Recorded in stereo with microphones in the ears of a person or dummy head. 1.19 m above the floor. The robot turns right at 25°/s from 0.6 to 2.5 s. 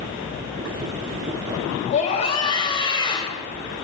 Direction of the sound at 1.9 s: 45° left (ahead or behind).